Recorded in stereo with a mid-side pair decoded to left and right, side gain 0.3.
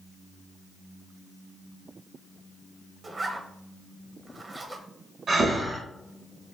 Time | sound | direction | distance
3.0 | a zipper | 50° right | 0.9 m
5.3 | breathing | 70° right | 1.3 m